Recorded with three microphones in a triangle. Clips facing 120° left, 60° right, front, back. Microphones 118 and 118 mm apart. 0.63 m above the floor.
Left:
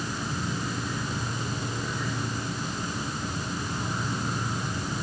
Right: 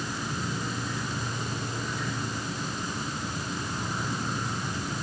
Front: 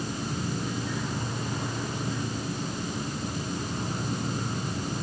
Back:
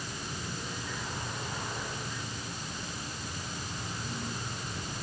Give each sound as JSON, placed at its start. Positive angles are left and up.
{"t": 0.0, "sound": "an insect", "azimuth_deg": 30, "distance_m": 1.5}